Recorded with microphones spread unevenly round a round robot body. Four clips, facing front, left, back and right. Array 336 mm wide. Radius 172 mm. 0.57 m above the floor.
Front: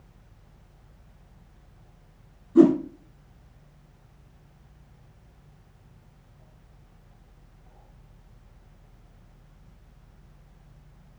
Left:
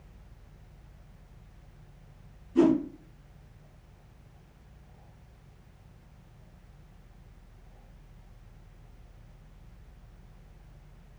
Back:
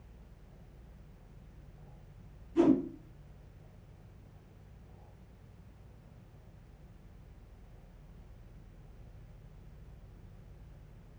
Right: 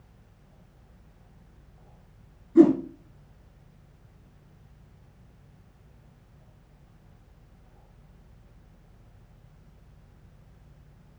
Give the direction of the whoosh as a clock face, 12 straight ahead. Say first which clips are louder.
Right 6 dB, front 9 dB; 1 o'clock.